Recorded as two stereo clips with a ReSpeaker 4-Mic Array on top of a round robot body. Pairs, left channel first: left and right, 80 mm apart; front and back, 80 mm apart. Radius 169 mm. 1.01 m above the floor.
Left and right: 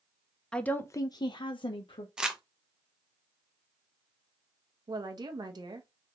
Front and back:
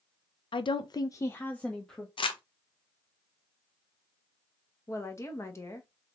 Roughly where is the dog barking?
I don't hear a dog barking.